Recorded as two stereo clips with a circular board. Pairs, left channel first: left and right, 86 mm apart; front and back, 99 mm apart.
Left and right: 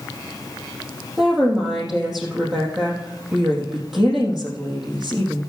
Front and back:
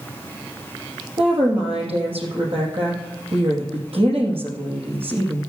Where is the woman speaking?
175° right, 4.5 m.